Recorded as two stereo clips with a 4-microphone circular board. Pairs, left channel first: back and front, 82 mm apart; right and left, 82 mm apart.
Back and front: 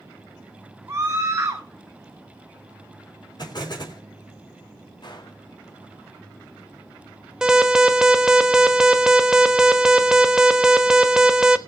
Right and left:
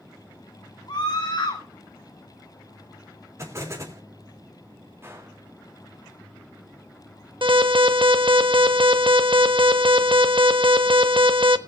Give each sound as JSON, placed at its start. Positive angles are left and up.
{"t": 0.9, "sound": "a scream", "azimuth_deg": -60, "distance_m": 1.3}
{"t": 3.4, "sound": "an explosion", "azimuth_deg": 145, "distance_m": 3.5}
{"t": 5.0, "sound": "a gunshot", "azimuth_deg": 150, "distance_m": 2.5}
{"t": 7.4, "sound": "an alarm", "azimuth_deg": 80, "distance_m": 0.9}